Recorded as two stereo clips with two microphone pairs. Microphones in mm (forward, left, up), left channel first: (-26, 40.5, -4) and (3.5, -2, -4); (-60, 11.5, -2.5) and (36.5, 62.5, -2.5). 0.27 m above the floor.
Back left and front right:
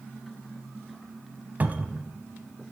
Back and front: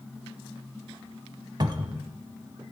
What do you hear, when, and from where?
1.6 s a cupboard door: 5° right, 0.8 m